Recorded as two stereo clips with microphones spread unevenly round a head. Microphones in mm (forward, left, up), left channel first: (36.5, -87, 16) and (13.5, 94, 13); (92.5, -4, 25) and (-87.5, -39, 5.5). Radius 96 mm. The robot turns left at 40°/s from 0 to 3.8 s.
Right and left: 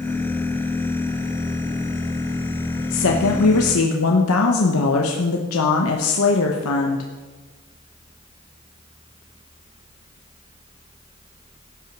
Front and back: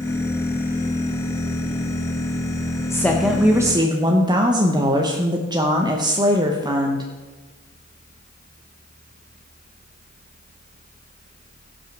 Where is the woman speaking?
65° right, 1.0 m; by 7.1 s 100° right, 1.0 m.